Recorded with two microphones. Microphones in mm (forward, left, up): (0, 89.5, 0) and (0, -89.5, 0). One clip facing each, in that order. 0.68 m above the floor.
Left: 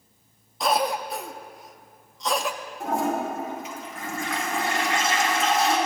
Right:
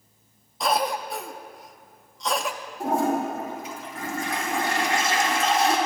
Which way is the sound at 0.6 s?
Centre (ahead or behind).